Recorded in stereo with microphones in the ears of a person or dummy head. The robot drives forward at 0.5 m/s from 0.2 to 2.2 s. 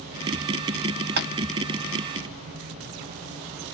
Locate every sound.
1.2 s tapping: 55° right (ahead or behind), 0.6 m; by 1.3 s 50° right (ahead or behind), 0.7 m